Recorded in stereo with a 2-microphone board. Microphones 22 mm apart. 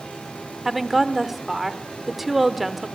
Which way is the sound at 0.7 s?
10° right (ahead or behind).